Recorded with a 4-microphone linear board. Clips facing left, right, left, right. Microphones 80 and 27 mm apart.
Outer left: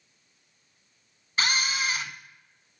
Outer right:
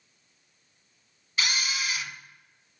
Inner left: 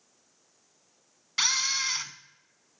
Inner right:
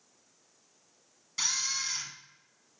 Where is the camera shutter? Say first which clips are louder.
Outer left 3 dB, inner left 6 dB; 45° left (ahead or behind), 0.5 m.